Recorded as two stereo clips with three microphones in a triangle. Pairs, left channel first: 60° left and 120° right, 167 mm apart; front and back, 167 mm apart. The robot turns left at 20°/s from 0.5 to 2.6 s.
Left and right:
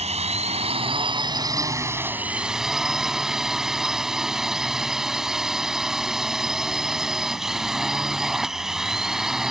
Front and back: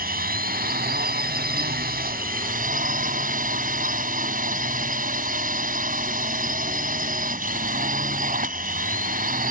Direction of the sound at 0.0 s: 165° right.